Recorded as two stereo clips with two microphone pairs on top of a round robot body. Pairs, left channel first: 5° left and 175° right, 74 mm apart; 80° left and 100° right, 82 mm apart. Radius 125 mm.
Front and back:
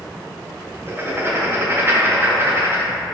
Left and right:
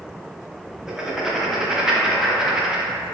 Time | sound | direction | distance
0.9 | writing | 155° right | 0.8 m